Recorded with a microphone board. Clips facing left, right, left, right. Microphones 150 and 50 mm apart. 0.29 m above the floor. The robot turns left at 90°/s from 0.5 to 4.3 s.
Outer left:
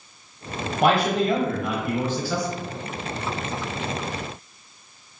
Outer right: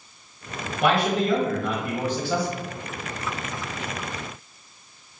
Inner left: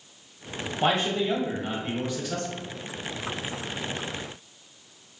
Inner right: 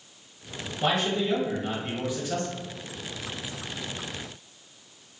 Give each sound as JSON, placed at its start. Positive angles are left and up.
{"t": 0.8, "sound": "a man speaking", "azimuth_deg": 90, "distance_m": 1.2}